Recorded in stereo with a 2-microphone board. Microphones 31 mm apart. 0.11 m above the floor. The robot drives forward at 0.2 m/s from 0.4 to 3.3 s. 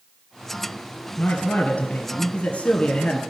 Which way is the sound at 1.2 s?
40° left (ahead or behind).